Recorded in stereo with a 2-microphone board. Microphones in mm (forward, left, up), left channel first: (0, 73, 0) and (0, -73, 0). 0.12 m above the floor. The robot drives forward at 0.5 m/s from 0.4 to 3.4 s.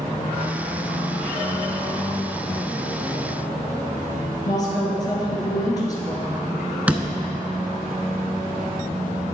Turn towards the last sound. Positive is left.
turn(degrees=-10)  # may be behind; listen again after turning